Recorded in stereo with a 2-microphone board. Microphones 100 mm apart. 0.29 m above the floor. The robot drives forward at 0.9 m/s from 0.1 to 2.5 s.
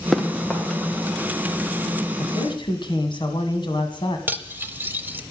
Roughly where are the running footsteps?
Centre.